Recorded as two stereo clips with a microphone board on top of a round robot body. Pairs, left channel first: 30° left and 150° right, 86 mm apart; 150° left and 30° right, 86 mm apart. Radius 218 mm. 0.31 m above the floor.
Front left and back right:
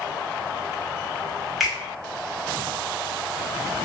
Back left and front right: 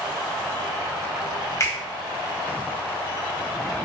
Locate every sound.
1.6 s a finger snap: 125° left, 1.5 m